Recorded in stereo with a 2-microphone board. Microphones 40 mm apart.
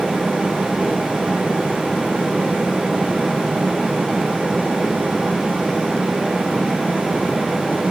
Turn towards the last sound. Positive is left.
No sound to turn to.